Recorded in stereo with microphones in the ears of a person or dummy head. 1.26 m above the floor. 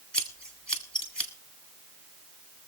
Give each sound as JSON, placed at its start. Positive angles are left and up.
{"t": 0.1, "sound": "scissors", "side_deg": 5, "distance_m": 2.0}